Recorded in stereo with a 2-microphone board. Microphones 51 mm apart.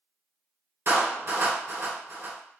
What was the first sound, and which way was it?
A clap, 65° right (ahead or behind).